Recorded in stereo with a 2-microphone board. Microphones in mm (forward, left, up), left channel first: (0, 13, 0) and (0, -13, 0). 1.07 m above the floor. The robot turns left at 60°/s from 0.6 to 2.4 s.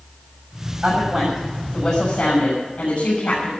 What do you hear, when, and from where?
0.8 s a woman speaking: 155° right, 6.5 m; by 3.5 s 110° left, 6.5 m